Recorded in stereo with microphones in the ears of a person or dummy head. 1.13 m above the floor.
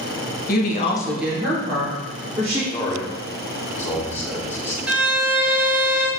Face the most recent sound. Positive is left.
turn(degrees=-5)  # may be behind; listen again after turning